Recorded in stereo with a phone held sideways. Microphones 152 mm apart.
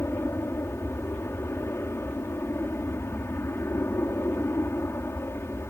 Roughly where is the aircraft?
Centre.